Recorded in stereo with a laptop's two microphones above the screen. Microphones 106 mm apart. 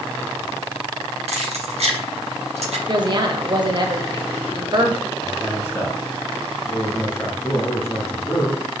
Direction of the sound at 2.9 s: 45° right (ahead or behind).